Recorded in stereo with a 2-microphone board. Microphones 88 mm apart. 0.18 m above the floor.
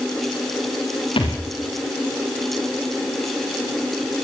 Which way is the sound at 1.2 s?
75° left (ahead or behind).